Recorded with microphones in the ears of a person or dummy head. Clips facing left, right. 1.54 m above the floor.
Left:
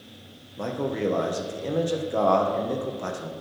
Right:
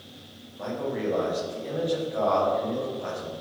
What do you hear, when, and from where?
0.6 s a man speaking: 60° left (ahead or behind), 1.3 m